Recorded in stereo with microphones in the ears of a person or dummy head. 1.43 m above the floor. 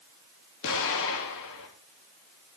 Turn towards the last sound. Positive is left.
turn(degrees=65)  # may be behind; listen again after turning